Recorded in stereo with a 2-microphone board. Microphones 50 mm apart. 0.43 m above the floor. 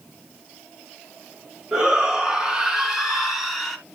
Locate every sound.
1.7 s a shout: 15° right (ahead or behind), 4.5 m; by 3.8 s centre (ahead or behind), 3.5 m